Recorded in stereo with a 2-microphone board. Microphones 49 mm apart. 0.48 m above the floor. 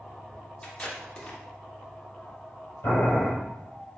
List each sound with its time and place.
0.6 s tape being pulled: 20° left (ahead or behind), 1.0 m
2.8 s boiling: 65° left (ahead or behind), 2 m